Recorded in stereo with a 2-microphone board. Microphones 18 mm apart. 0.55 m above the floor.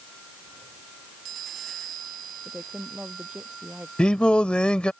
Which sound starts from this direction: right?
A woman speaking, at 2.5 s.